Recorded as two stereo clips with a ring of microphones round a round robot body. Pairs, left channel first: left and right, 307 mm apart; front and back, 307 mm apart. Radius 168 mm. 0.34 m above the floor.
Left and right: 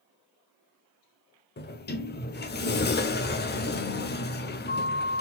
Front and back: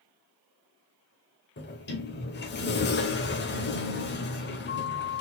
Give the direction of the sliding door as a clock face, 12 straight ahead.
11 o'clock.